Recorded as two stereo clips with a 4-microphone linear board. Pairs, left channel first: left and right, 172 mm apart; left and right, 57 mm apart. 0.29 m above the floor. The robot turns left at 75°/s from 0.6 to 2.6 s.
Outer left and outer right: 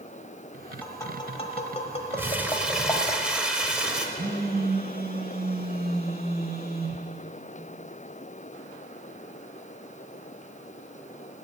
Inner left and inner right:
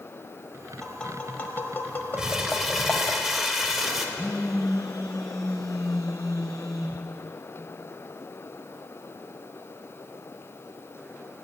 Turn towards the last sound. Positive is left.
turn(degrees=-65)  # may be behind; listen again after turning